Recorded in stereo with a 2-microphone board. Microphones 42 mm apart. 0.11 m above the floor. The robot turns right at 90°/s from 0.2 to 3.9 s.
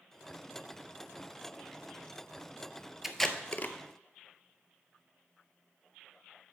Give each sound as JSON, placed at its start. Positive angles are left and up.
{"t": 3.0, "sound": "tape being pulled", "side_deg": -5, "distance_m": 0.6}